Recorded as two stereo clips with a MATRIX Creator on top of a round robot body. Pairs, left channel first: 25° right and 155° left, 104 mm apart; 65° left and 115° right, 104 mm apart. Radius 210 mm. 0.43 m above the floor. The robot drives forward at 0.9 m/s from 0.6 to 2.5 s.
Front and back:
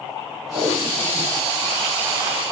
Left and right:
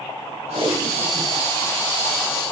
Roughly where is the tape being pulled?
Right.